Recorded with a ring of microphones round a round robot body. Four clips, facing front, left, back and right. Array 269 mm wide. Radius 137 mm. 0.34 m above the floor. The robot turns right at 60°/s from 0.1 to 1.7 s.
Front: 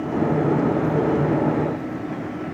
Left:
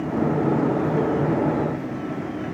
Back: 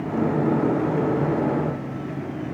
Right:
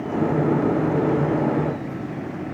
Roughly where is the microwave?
No microwave in this recording.